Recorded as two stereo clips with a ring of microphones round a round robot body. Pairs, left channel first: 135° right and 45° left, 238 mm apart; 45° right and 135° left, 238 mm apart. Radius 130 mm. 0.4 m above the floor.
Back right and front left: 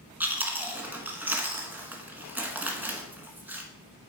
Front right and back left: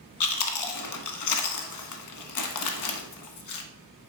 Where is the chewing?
40° right, 0.7 m.